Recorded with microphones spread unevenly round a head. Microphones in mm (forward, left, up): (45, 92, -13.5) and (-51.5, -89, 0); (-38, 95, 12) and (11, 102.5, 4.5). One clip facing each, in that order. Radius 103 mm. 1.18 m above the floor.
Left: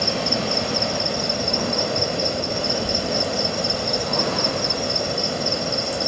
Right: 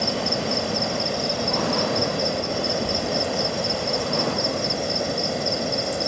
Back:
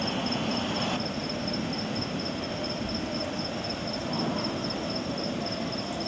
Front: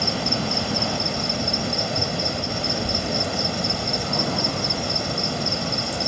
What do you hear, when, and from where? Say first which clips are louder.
0.0 s an insect: left 1 dB, front 4 dB; 25° right